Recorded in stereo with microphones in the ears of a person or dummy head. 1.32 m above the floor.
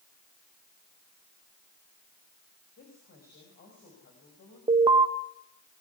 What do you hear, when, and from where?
2.8 s a woman speaking: 50° left (ahead or behind), 7 m
4.7 s an alarm: 20° right (ahead or behind), 1.6 m